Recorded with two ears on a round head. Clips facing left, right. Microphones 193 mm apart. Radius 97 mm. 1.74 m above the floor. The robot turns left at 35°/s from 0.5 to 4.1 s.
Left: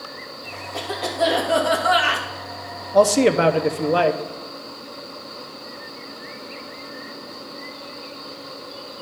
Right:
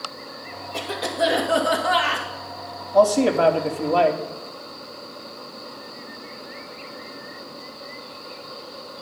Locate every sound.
0.7 s a cough: 145° right, 2 m; by 2.3 s 160° left, 2 m
2.9 s a man speaking: 60° left, 0.7 m; by 4.2 s 20° left, 0.7 m